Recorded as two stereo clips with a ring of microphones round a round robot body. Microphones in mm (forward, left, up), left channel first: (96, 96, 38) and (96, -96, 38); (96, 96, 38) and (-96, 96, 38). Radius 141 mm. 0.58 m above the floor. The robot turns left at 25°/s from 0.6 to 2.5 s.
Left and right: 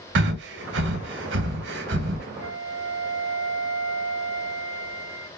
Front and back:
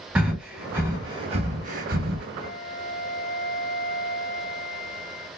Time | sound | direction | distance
0.1 | breathing | 95° right | 0.5 m
2.4 | a flute | 95° right | 2.0 m